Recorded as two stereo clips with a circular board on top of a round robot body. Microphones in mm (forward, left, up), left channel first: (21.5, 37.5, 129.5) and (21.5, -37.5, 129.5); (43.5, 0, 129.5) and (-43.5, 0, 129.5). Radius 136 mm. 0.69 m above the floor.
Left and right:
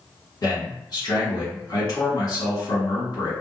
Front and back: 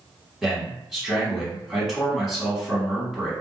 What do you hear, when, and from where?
0.4 s a man speaking: 95° left, 1.8 m